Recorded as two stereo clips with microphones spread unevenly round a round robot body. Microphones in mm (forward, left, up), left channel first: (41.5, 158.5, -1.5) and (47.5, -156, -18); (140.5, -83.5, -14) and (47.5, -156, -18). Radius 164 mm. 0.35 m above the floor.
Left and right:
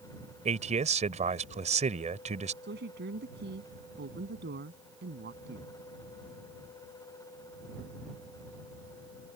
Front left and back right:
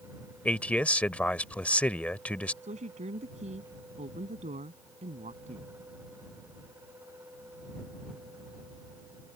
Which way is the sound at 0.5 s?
35° right.